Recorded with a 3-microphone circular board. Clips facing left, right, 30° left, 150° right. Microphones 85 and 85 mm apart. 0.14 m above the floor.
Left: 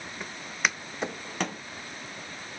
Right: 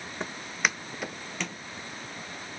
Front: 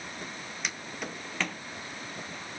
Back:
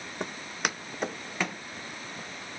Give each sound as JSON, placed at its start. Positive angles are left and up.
{"t": 0.2, "sound": "footsteps", "azimuth_deg": -155, "distance_m": 0.6}